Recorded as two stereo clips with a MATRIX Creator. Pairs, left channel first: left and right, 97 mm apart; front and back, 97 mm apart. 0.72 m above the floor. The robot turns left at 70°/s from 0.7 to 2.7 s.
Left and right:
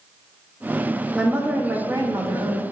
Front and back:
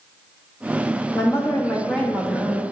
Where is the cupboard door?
I don't hear a cupboard door.